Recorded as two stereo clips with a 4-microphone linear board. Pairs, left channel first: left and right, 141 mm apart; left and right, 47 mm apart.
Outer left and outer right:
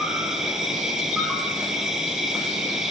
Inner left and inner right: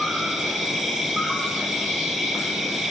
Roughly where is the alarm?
No alarm in this recording.